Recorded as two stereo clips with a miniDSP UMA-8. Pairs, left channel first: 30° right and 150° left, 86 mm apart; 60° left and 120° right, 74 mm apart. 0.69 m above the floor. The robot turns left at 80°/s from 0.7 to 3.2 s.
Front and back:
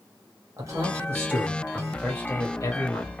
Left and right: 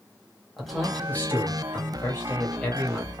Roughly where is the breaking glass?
I don't hear breaking glass.